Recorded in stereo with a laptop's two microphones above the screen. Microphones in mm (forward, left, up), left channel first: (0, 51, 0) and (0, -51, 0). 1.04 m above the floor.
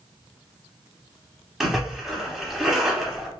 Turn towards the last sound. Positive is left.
turn(degrees=-5)  # may be behind; listen again after turning